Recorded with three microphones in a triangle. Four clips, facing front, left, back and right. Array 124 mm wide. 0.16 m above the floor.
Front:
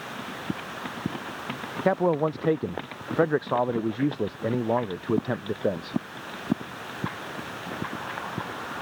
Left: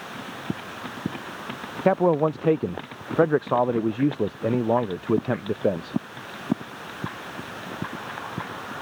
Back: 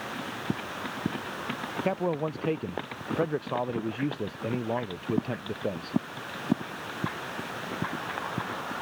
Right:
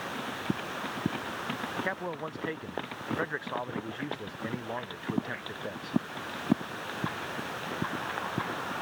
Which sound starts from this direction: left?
A man speaking, at 1.9 s.